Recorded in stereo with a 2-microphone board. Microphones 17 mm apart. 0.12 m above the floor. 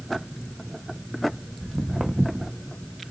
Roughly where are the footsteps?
Right.